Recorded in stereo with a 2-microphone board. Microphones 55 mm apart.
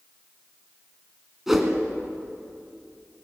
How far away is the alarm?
I don't hear an alarm.